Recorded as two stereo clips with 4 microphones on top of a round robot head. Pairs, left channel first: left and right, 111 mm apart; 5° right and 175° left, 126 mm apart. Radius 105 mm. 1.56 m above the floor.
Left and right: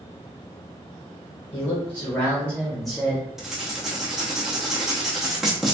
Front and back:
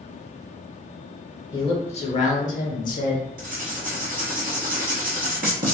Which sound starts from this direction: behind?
Writing, at 3.4 s.